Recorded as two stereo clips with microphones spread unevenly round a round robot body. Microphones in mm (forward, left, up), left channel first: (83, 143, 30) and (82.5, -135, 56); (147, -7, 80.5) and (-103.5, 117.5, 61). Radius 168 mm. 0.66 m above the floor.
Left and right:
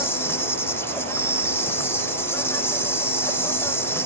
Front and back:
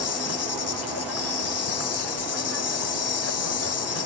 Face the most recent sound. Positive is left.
turn(degrees=10)